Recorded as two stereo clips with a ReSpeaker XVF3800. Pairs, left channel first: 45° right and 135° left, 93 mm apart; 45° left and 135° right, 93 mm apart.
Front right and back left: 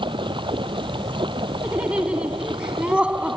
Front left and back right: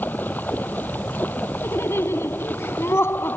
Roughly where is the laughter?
Left.